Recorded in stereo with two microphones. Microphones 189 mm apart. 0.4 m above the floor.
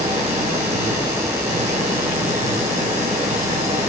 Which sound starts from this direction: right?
An engine running, at 0.0 s.